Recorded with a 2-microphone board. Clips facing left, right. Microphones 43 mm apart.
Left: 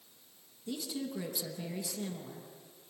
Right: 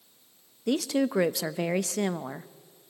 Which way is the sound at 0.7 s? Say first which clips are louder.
Right 13 dB; 65° right (ahead or behind).